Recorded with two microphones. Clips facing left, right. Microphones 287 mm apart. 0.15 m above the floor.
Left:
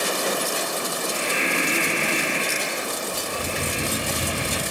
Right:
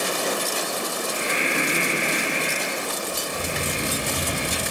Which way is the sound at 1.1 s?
20° right (ahead or behind).